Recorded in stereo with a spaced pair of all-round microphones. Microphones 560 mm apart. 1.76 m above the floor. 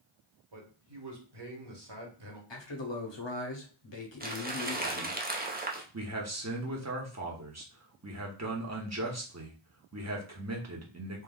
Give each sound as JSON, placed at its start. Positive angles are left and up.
{"t": 0.5, "sound": "a man speaking", "side_deg": -45, "distance_m": 1.1}
{"t": 2.5, "sound": "a man speaking", "side_deg": 50, "distance_m": 0.8}
{"t": 4.2, "sound": "crumpling", "side_deg": -20, "distance_m": 0.5}
{"t": 5.9, "sound": "a man speaking", "side_deg": -30, "distance_m": 0.7}